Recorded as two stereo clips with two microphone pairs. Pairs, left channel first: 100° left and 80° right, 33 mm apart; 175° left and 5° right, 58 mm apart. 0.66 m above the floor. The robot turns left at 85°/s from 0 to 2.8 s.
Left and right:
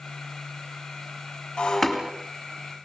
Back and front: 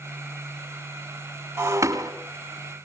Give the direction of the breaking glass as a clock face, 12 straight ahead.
11 o'clock.